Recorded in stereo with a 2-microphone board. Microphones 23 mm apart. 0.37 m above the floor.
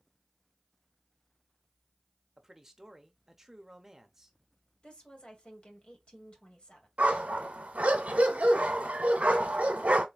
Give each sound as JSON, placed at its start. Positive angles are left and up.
{"t": 2.4, "sound": "a man speaking", "side_deg": -15, "distance_m": 0.8}
{"t": 4.8, "sound": "a woman speaking", "side_deg": 50, "distance_m": 1.9}
{"t": 7.0, "sound": "a dog barking", "side_deg": -70, "distance_m": 1.1}